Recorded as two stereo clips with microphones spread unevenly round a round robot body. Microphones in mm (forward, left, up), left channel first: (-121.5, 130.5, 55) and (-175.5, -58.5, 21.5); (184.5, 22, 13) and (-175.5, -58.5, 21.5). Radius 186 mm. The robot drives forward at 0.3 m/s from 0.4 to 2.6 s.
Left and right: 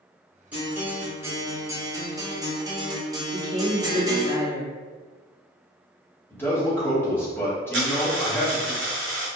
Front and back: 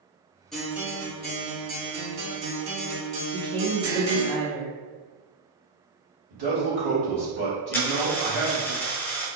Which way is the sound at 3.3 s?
170° right.